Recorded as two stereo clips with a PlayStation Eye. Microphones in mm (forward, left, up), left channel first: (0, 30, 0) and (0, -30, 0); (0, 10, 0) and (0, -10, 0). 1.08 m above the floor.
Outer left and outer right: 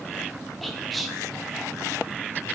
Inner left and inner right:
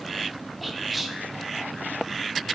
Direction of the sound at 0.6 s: Centre (ahead or behind).